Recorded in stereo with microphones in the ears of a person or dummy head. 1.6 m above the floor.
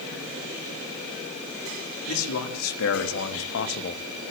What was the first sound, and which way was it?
A man speaking, 85° left.